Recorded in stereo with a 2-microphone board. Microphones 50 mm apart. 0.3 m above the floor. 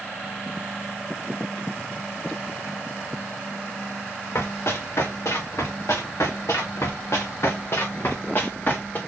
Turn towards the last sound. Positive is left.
turn(degrees=35)  # may be behind; listen again after turning